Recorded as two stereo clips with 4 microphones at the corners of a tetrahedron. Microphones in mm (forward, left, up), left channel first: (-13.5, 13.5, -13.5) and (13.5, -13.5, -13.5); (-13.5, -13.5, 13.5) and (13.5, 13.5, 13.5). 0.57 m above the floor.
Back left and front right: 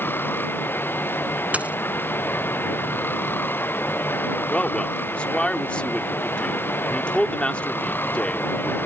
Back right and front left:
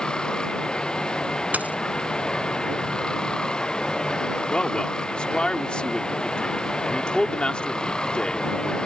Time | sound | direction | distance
0.0 | running water | 155° left | ?
1.5 | a dropped coin | straight ahead | ?
4.5 | a man speaking | 175° left | ?